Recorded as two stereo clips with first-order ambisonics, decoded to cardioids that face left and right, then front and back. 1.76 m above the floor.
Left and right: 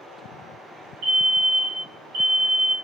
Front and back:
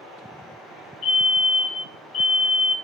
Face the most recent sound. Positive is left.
turn(degrees=-55)